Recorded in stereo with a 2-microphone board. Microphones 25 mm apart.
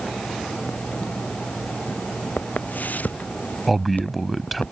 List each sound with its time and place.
2.4 s footsteps: 85° left; by 4.7 s 80° left
3.7 s a man speaking: centre (ahead or behind)